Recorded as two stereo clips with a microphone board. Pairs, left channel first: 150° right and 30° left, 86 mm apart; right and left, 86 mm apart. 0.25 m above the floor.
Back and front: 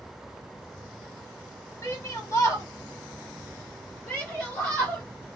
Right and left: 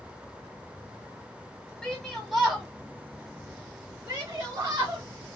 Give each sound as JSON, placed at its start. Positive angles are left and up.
{"t": 1.8, "sound": "a shout", "azimuth_deg": -170, "distance_m": 1.3}